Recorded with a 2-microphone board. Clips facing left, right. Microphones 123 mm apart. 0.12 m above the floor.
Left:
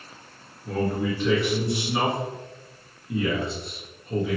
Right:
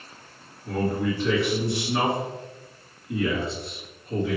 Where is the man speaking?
Centre (ahead or behind), 1.6 m.